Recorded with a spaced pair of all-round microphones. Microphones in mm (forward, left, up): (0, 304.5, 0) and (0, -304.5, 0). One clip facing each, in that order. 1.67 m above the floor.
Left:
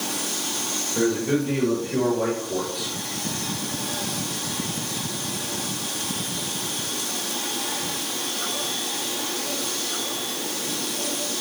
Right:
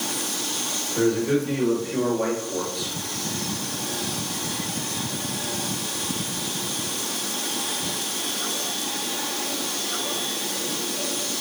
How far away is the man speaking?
About 4.5 m.